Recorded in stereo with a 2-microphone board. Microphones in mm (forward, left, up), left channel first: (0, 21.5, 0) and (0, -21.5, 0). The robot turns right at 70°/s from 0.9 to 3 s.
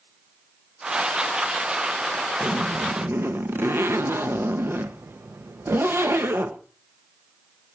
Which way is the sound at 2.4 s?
130° right.